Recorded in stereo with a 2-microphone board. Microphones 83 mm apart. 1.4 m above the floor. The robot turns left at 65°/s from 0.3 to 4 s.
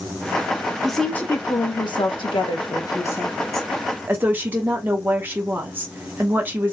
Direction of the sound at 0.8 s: Straight behind.